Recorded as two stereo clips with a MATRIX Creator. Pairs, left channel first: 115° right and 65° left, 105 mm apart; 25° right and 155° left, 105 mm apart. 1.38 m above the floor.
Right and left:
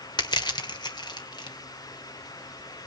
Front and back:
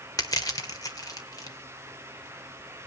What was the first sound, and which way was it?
Crushing, 70° right.